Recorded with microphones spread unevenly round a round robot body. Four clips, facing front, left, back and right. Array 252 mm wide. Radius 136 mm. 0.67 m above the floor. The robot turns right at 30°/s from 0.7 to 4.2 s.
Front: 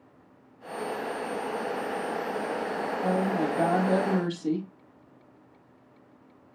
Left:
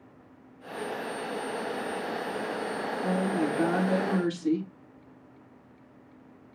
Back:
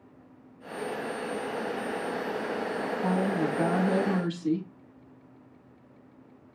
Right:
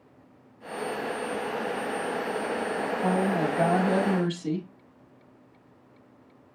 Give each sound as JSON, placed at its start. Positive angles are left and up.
{"t": 3.0, "sound": "a woman speaking", "azimuth_deg": -50, "distance_m": 5.5}